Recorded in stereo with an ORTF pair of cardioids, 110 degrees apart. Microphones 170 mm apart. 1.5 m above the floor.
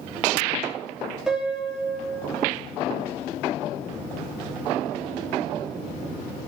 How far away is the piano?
About 3.5 m.